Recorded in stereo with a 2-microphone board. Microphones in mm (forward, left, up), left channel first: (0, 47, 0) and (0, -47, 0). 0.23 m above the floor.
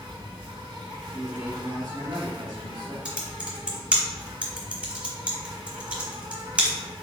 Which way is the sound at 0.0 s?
65° right (ahead or behind).